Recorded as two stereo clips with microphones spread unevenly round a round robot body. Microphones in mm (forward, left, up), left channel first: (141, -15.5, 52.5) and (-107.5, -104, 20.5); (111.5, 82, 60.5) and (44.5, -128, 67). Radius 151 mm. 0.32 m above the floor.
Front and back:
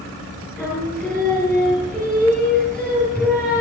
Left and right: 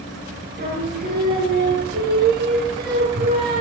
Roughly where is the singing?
Right.